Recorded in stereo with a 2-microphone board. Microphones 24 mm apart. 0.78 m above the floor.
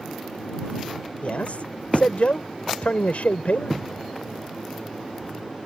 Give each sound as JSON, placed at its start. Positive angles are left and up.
{"t": 1.2, "sound": "a man speaking", "side_deg": 70}